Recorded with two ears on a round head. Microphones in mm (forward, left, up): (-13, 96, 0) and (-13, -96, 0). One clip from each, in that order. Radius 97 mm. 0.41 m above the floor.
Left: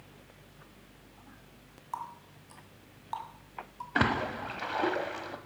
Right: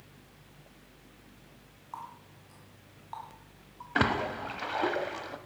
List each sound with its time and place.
1.9 s a running tap: 30° left (ahead or behind), 2 m
4.0 s a splash: 5° right (ahead or behind), 0.9 m